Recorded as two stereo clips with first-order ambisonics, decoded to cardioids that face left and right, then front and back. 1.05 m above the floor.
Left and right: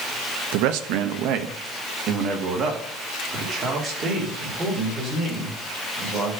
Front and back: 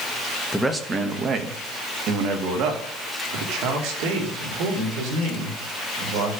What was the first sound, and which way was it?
A man speaking, 95° right.